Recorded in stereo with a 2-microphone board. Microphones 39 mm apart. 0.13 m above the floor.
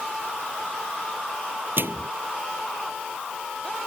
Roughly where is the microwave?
Right.